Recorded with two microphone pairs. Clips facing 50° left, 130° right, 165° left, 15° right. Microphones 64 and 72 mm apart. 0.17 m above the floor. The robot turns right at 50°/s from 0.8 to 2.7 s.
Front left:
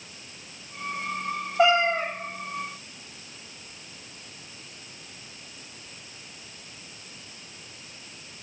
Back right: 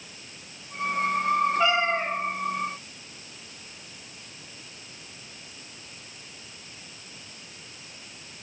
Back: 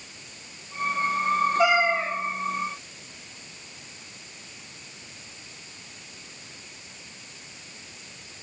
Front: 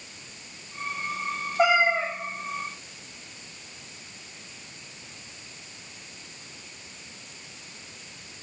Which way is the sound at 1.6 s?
30° left.